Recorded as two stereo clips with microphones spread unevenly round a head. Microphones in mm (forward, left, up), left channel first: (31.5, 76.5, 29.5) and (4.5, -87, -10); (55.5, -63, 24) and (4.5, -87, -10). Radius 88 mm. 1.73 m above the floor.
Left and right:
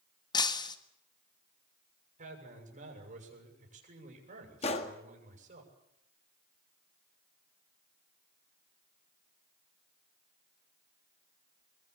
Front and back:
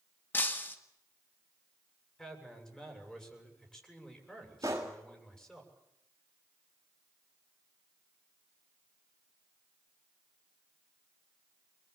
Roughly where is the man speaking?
Ahead right.